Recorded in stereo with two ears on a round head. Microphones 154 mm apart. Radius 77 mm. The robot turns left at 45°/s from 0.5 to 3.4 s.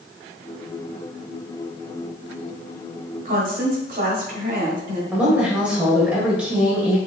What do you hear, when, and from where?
3.2 s a woman speaking: 45° right (ahead or behind), 1.7 m; by 5.0 s 50° right (ahead or behind), 1.7 m
5.1 s a woman speaking: 5° right (ahead or behind), 1.8 m